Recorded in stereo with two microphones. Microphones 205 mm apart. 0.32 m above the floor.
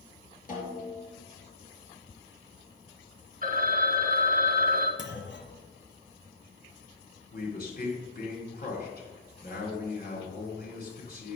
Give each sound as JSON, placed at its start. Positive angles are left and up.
{"t": 0.5, "sound": "a snare drum", "side_deg": 40, "distance_m": 3.5}
{"t": 3.4, "sound": "a phone ringing", "side_deg": -40, "distance_m": 1.2}
{"t": 5.0, "sound": "a clunk", "side_deg": 60, "distance_m": 1.1}
{"t": 7.3, "sound": "a man speaking", "side_deg": 50, "distance_m": 3.5}